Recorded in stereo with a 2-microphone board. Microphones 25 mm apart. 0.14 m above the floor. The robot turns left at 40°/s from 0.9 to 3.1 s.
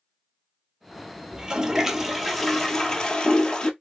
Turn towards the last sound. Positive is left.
turn(degrees=145)